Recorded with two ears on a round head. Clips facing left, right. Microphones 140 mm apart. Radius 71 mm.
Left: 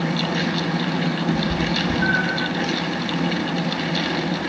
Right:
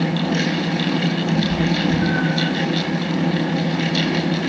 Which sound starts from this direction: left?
A cat meowing, at 1.3 s.